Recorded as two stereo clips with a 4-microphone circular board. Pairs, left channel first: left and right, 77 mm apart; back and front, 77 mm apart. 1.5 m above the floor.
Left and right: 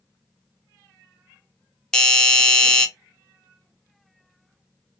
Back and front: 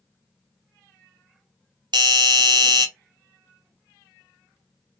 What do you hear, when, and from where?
1.9 s a doorbell: 5° left, 0.6 m